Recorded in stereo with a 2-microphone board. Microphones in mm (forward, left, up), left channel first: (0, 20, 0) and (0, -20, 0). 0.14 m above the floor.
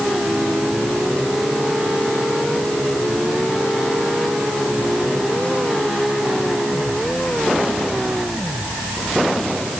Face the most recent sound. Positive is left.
No sound to turn to.